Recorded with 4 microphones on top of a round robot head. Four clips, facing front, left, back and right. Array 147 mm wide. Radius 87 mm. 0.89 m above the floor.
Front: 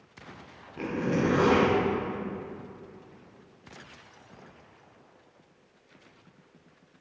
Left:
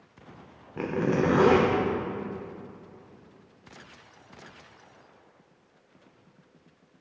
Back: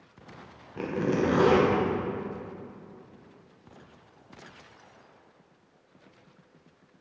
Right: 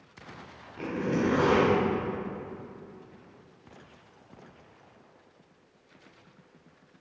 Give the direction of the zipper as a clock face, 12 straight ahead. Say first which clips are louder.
Left 3 dB, back 1 dB; 8 o'clock.